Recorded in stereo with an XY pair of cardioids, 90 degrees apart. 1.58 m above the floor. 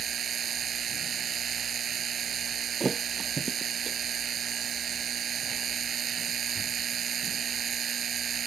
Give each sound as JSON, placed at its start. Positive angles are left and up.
{"t": 0.0, "sound": "a machine running", "azimuth_deg": -55}
{"t": 2.8, "sound": "a thud", "azimuth_deg": -25}